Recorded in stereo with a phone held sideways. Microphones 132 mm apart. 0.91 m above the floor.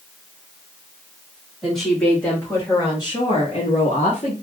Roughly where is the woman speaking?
Centre.